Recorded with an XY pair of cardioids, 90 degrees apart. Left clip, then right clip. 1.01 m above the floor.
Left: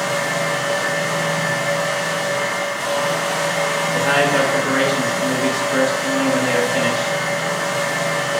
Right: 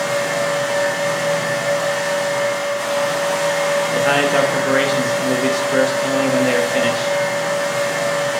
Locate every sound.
0.0 s a fan: 10° right, 1.7 m
3.9 s a man speaking: 35° right, 0.6 m